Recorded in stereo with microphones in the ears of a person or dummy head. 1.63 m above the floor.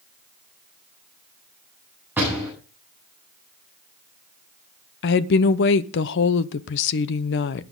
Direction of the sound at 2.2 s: 10° right (ahead or behind).